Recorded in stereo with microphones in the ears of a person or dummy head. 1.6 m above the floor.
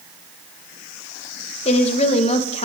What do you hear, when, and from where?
1.6 s a woman speaking: 40° left (ahead or behind), 1.4 m